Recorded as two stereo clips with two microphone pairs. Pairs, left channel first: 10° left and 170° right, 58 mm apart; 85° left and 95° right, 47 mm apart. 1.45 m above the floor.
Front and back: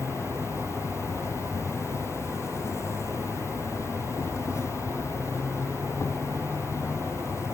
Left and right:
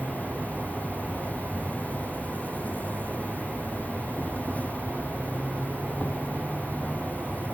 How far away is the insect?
About 0.8 m.